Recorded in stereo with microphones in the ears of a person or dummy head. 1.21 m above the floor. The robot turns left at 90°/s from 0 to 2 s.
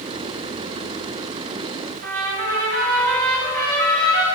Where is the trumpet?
50° right (ahead or behind), 9 m.